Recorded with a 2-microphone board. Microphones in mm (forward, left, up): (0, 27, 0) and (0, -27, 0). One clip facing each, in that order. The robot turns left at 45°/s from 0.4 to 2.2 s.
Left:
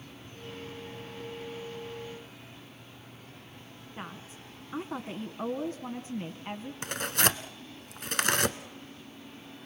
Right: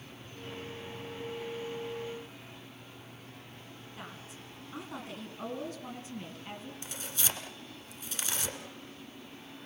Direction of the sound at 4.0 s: 25° left (ahead or behind).